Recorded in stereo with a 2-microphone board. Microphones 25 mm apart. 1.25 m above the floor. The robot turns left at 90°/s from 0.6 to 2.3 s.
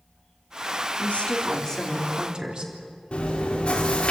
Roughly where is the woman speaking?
Left.